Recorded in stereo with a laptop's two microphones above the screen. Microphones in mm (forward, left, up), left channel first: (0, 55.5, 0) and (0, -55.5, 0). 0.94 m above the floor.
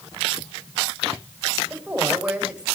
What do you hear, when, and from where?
1.7 s a woman speaking: 10° right (ahead or behind), 4 m